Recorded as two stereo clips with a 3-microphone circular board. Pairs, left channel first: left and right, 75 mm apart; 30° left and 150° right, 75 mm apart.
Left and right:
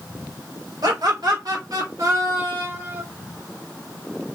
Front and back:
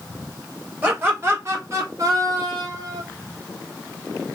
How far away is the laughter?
About 1.8 m.